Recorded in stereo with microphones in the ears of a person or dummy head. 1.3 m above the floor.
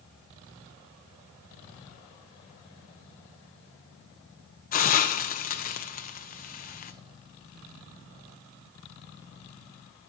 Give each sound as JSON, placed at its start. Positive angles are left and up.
{"t": 4.7, "sound": "a hiss", "side_deg": 45, "distance_m": 0.6}